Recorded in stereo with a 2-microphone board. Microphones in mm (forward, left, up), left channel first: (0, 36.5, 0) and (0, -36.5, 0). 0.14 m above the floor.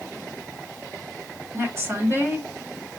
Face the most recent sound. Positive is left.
turn(degrees=-35)  # may be behind; listen again after turning